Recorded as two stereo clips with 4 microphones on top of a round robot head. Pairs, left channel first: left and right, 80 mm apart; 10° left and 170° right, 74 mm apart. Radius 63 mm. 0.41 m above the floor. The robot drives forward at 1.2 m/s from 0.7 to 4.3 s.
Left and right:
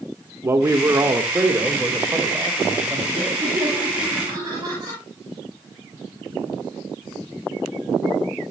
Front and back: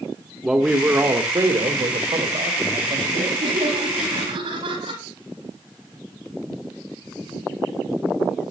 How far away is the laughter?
About 9.5 m.